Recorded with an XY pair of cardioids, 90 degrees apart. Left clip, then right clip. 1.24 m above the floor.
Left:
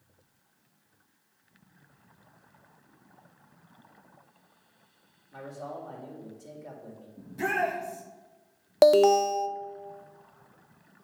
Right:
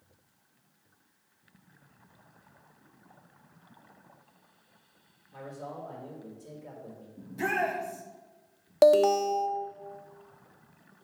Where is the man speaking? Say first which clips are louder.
Left 2 dB; 65° left, 4 m.